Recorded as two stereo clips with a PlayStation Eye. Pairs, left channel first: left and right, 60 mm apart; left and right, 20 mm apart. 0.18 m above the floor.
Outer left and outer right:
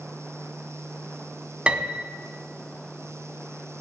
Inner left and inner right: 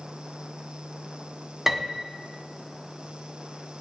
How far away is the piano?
About 1.0 m.